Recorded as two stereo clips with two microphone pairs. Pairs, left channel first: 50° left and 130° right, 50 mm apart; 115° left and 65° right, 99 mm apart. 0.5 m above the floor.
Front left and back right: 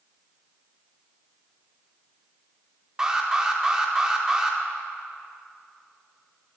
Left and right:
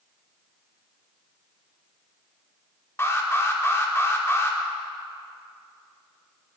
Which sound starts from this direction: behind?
An alarm, at 3.0 s.